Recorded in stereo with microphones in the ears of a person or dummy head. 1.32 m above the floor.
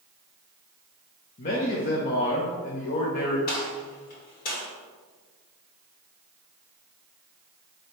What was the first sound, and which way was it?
A man speaking, 45° left (ahead or behind).